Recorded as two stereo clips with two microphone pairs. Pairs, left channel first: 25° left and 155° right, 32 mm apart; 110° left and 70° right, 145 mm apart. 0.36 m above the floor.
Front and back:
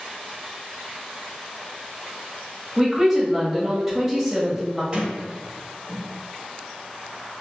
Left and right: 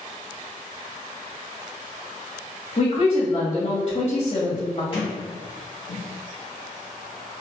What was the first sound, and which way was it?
A woman speaking, 125° left.